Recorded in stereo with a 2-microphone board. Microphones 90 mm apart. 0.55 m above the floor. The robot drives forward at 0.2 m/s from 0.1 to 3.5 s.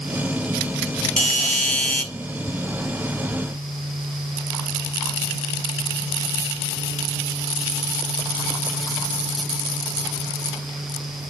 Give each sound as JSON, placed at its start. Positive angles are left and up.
{"t": 1.2, "sound": "a doorbell", "side_deg": 15, "distance_m": 1.2}